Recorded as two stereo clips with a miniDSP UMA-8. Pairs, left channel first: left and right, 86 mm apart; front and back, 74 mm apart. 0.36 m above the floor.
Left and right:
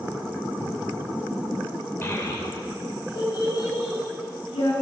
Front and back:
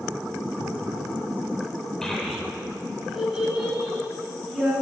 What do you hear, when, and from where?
2.0 s a child speaking: 75° left, 0.6 m; by 4.7 s 105° left, 2 m